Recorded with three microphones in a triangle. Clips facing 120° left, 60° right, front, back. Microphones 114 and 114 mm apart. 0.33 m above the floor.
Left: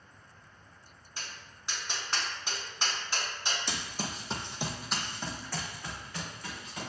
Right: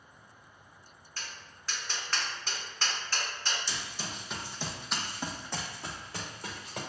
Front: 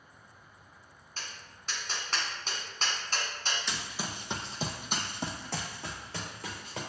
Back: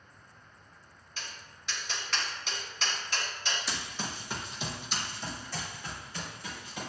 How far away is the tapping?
About 1.2 m.